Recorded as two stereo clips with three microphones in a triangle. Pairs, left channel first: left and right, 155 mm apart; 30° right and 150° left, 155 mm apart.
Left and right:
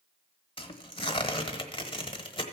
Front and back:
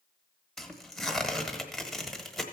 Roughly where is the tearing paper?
Ahead left.